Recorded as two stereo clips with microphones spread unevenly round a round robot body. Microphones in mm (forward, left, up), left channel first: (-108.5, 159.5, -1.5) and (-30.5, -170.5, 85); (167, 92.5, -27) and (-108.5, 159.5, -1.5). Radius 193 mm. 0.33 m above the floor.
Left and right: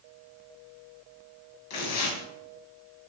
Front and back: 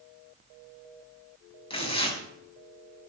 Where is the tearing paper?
55° left, 7 m.